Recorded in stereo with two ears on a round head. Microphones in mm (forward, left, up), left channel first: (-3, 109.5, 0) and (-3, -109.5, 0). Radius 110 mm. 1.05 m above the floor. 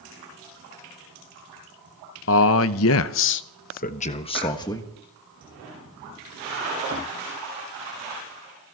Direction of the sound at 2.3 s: 60° left (ahead or behind).